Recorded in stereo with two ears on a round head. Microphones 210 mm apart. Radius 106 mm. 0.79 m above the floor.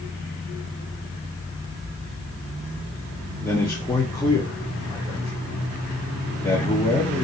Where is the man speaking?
10° left (ahead or behind), 0.9 m.